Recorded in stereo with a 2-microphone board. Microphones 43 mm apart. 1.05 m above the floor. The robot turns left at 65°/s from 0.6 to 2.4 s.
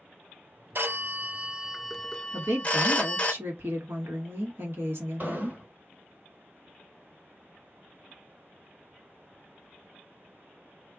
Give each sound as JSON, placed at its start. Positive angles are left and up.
{"t": 0.8, "sound": "a phone ringing", "azimuth_deg": -110, "distance_m": 0.6}
{"t": 2.3, "sound": "a woman speaking", "side_deg": -60, "distance_m": 1.2}
{"t": 5.2, "sound": "an explosion", "side_deg": -45, "distance_m": 1.7}